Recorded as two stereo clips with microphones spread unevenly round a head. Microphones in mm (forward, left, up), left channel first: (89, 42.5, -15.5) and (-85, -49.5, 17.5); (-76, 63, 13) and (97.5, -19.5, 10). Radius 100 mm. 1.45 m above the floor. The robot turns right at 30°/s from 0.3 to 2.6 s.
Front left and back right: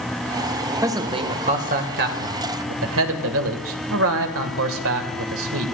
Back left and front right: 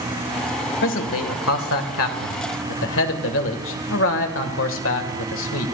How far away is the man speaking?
About 1.8 m.